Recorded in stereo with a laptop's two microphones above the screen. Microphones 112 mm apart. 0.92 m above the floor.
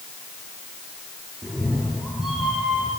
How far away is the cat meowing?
About 9 m.